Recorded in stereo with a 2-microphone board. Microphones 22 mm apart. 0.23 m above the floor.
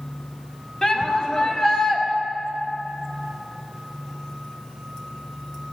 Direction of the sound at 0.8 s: 30° left (ahead or behind).